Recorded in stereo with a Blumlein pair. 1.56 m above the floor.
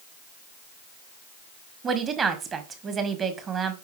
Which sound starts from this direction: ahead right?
A woman speaking, at 1.8 s.